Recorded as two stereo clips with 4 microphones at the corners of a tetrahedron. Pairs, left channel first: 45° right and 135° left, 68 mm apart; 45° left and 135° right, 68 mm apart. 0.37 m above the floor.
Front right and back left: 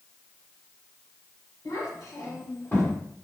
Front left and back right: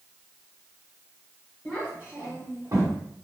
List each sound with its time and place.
1.6 s a child speaking: 45° right, 1.2 m; by 3.0 s 120° right, 1.3 m